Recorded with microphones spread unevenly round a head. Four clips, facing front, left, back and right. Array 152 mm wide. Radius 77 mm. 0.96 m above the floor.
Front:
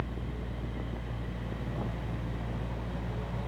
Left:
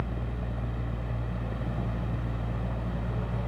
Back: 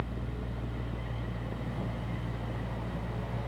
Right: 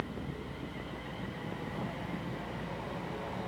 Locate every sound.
0.0 s a fan: 100° left, 1.4 m